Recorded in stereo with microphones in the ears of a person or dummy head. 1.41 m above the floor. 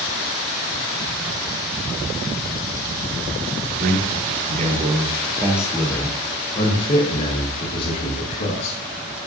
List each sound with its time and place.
3.8 s a man speaking: 60° right (ahead or behind), 1.6 m; by 8.8 s 60° left (ahead or behind), 2.5 m